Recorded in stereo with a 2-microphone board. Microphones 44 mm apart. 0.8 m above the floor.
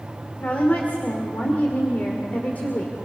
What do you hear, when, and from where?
0.4 s a woman speaking: 40° left (ahead or behind), 2.5 m